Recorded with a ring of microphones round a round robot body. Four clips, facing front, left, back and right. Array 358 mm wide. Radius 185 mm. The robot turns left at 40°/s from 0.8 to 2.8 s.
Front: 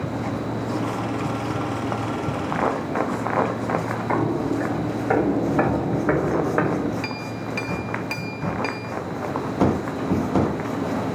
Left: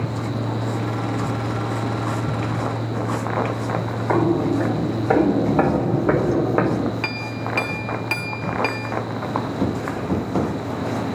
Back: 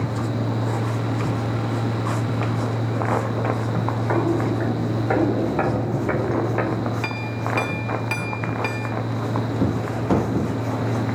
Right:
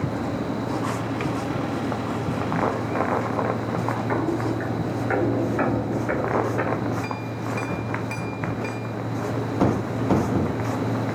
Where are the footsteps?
95° left, 4.5 m; by 6.9 s 70° left, 2.5 m.